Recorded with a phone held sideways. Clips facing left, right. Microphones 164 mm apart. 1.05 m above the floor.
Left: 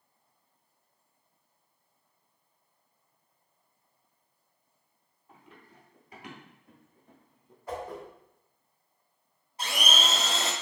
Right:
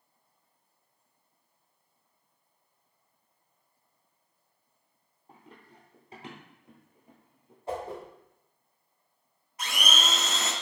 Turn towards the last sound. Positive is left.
turn(degrees=30)  # may be behind; listen again after turning